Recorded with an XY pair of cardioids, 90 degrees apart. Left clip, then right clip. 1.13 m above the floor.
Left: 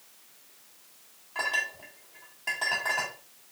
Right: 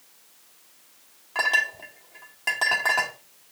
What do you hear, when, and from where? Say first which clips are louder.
1.4 s a clink: right 7 dB; 70° right, 2 m